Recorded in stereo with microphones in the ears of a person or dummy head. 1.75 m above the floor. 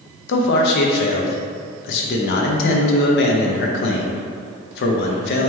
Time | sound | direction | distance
0.3 | a man speaking | 65° left (ahead or behind) | 0.6 m